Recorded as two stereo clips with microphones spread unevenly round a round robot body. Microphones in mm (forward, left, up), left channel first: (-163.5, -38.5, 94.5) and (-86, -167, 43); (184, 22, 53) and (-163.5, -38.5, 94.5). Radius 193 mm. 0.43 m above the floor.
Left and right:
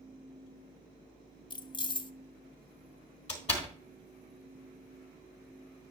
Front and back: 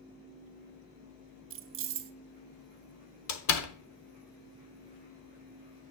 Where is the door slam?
50° left, 1.2 m.